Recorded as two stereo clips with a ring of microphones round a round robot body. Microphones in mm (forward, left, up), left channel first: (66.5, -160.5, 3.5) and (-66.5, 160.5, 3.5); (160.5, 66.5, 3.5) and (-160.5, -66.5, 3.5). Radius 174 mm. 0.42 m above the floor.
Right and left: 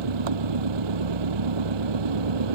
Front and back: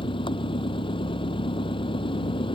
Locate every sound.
0.0 s an engine running: 100° left